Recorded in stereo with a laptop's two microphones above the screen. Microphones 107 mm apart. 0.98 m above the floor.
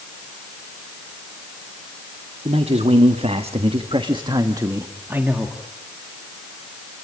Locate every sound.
2.5 s a man speaking: 80° right, 1.9 m; by 5.6 s 10° right (ahead or behind), 1.8 m